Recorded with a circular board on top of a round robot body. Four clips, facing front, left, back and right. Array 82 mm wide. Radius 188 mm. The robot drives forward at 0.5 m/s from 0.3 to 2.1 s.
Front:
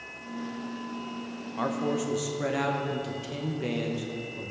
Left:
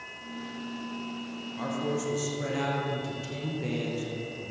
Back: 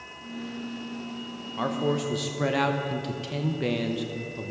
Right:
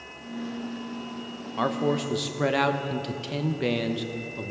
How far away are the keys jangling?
No keys jangling in this recording.